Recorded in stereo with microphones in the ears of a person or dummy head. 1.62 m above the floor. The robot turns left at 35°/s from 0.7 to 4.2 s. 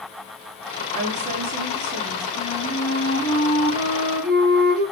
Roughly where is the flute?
Ahead right.